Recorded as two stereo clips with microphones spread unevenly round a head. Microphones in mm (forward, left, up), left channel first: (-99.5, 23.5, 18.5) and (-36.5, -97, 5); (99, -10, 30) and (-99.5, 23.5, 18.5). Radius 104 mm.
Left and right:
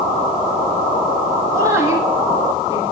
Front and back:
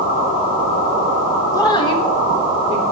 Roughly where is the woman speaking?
Ahead left.